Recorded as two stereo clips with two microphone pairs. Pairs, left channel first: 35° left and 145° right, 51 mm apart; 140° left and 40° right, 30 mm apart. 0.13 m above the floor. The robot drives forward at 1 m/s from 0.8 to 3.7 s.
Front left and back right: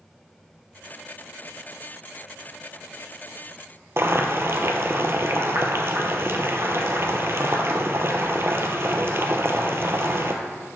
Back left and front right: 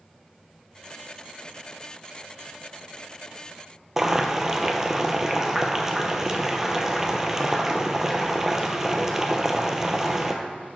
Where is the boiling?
110° right, 0.8 m.